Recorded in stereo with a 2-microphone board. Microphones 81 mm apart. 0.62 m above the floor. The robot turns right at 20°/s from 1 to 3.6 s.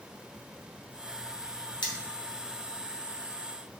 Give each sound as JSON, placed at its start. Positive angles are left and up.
{"t": 1.8, "sound": "cutlery clinking", "side_deg": 65, "distance_m": 2.5}